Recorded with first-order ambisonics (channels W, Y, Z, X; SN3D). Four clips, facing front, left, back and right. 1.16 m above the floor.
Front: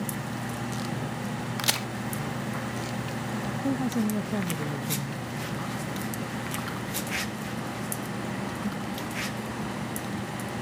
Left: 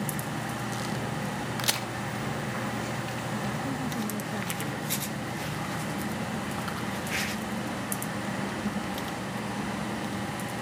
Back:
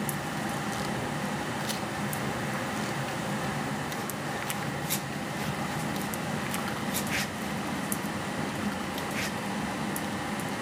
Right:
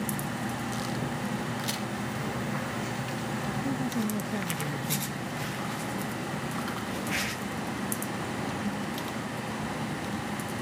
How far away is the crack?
About 1.5 m.